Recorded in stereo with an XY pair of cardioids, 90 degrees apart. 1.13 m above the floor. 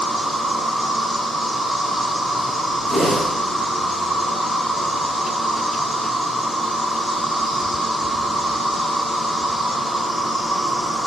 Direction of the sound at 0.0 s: 5° right.